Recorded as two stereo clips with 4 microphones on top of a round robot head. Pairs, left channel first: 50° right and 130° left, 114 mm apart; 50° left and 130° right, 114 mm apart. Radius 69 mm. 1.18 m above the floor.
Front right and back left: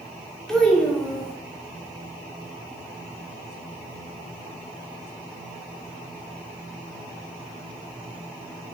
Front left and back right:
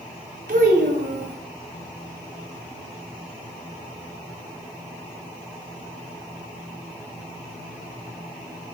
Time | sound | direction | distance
0.5 | a child speaking | 135° right | 0.8 m